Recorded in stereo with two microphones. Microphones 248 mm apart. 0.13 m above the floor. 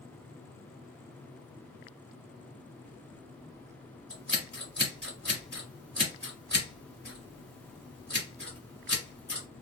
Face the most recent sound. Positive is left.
turn(degrees=5)  # may be behind; listen again after turning